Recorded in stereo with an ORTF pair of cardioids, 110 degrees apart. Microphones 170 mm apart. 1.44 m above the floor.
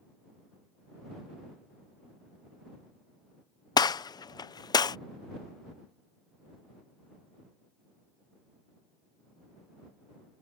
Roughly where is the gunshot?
Ahead left.